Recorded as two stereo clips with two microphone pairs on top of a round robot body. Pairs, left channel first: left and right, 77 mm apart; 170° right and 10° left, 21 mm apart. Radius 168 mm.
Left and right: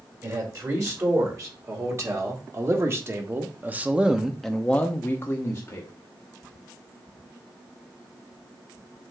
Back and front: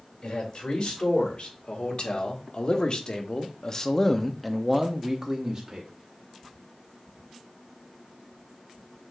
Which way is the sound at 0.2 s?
130° right.